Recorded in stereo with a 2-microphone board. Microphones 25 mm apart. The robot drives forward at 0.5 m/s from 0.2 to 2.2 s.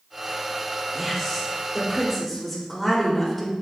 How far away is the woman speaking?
About 2.5 m.